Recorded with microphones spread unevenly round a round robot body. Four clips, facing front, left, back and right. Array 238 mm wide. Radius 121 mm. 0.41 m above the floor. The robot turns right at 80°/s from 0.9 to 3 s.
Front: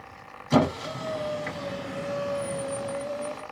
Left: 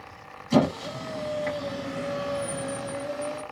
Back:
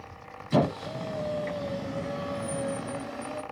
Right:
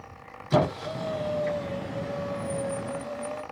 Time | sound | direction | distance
0.5 | a squeak | 15° right | 1.9 m